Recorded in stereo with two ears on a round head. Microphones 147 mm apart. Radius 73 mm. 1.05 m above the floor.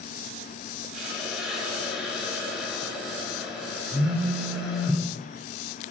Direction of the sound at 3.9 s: 70° right (ahead or behind).